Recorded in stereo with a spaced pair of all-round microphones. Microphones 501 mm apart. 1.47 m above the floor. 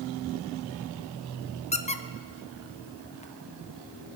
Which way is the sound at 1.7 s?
15° left (ahead or behind).